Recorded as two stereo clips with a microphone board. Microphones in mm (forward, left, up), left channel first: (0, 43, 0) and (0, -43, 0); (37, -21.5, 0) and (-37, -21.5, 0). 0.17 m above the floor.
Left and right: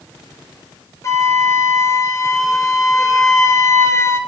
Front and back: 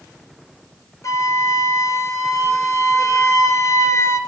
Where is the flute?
40° left, 0.8 m.